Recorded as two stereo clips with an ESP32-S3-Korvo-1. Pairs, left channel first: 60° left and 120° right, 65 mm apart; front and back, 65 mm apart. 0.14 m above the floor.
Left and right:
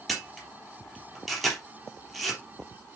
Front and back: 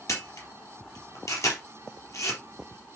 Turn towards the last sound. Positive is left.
turn(degrees=-30)